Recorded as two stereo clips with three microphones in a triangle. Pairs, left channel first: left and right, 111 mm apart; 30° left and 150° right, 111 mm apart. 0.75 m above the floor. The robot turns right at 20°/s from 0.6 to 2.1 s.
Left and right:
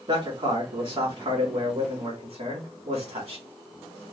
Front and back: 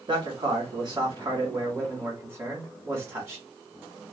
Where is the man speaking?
115° right, 1.9 m; by 3.4 s 85° right, 1.9 m.